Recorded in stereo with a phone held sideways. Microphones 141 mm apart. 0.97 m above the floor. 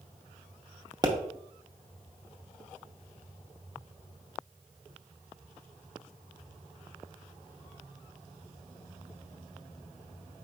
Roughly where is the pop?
Right.